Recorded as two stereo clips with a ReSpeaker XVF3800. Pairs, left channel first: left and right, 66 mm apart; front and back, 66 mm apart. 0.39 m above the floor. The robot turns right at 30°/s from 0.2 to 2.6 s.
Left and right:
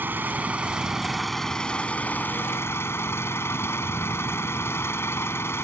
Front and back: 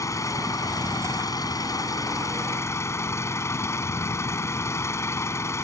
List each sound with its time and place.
0.0 s an engine running: 30° right; by 5.6 s 40° left